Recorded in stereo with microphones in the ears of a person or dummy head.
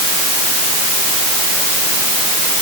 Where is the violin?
No violin in this recording.